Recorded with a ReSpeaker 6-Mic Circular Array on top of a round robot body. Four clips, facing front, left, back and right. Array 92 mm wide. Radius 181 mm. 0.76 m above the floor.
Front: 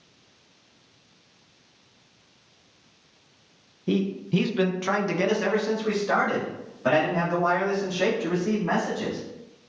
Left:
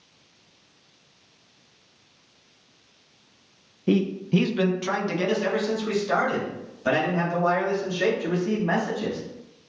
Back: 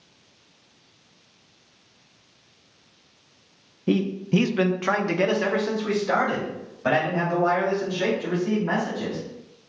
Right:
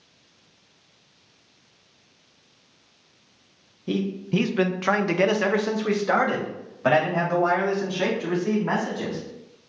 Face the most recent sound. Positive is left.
turn(degrees=-90)